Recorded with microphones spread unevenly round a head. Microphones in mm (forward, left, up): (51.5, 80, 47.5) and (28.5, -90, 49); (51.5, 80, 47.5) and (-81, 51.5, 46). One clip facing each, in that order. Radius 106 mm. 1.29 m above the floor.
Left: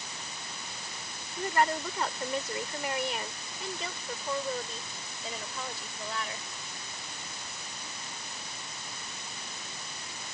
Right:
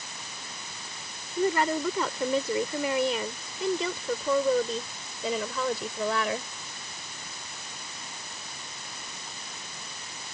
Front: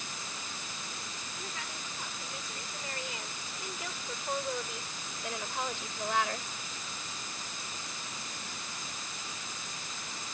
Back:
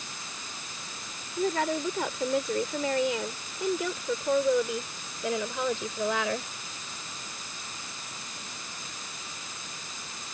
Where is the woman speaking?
110° right; by 6.5 s 145° right.